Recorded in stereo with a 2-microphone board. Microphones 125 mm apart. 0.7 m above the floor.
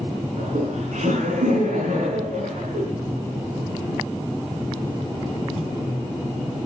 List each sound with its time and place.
0.4 s laughter: 85° right, 6 m